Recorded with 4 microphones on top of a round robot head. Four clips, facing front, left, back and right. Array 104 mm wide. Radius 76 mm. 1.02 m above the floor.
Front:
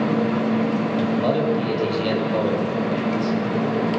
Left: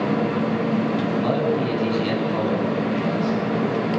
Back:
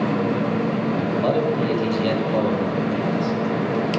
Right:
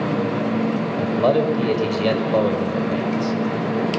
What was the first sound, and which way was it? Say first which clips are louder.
A man speaking: right 3 dB, back 1 dB; 90° right.